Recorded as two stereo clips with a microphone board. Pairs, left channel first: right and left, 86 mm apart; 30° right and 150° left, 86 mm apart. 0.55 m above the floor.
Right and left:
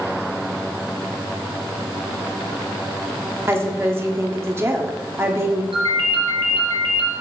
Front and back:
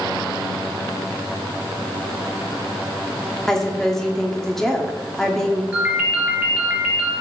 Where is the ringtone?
75° left, 3.5 m.